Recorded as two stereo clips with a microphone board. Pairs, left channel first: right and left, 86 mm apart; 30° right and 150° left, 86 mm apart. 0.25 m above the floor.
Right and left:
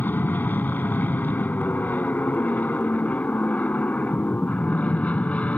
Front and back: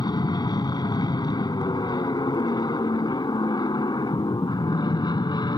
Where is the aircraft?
25° right; by 5.6 s 15° right.